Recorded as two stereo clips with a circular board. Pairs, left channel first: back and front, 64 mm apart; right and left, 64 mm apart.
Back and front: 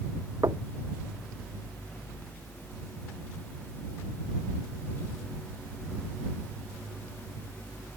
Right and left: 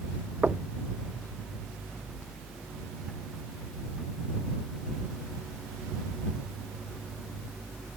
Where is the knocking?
20° left.